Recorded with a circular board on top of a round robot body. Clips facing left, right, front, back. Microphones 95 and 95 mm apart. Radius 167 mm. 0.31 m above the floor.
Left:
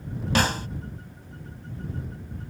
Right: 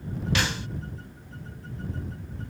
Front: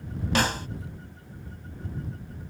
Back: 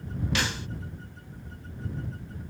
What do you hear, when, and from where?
0.3 s a snare drum: 45° left